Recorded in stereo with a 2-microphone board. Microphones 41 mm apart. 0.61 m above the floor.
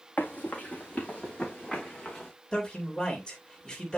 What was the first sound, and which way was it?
Running footsteps, 45° left (ahead or behind).